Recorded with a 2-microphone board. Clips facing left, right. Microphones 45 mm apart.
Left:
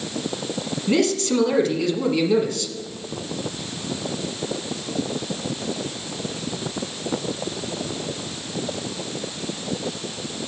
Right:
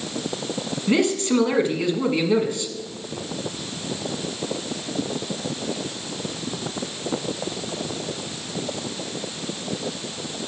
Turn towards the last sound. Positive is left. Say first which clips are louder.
# even
turn(degrees=-20)  # may be behind; listen again after turning